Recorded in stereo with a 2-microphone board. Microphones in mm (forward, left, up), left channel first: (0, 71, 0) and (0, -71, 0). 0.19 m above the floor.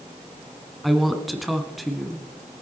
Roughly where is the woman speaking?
Centre.